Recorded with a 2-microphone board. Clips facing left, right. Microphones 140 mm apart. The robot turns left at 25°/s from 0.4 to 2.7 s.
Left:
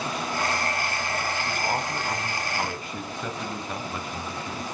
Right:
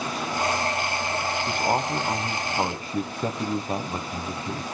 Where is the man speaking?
25° right (ahead or behind), 1.1 m; by 4.6 s 35° right (ahead or behind), 1.1 m.